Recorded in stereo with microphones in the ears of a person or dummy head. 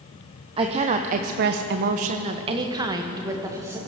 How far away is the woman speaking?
About 1.0 m.